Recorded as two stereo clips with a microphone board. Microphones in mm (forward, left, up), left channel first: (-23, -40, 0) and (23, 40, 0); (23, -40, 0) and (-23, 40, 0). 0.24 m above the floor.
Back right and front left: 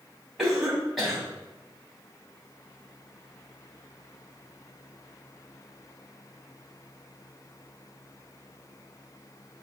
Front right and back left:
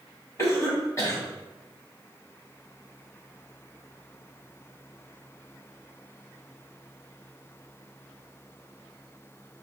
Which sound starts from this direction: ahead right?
A cough, at 0.4 s.